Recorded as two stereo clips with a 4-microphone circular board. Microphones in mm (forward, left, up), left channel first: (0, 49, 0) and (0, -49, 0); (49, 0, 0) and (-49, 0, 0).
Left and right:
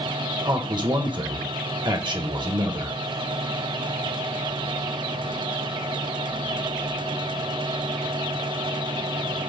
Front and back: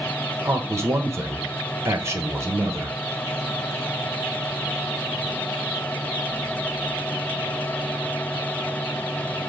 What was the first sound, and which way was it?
A man speaking, 120° right.